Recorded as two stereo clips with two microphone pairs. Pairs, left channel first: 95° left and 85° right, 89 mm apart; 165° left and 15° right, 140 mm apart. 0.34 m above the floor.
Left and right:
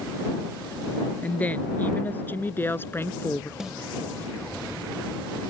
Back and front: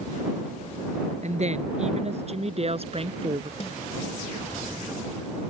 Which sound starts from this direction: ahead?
A woman speaking, at 1.2 s.